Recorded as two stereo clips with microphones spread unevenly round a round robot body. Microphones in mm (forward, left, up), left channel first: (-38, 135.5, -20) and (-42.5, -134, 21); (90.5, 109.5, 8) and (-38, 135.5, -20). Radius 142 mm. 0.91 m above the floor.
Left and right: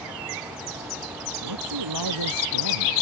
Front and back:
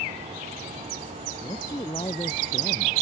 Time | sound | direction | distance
1.4 | a man speaking | 85° right | ?